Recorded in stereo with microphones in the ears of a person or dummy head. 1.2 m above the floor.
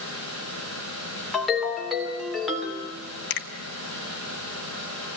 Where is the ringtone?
Centre (ahead or behind), 3 m.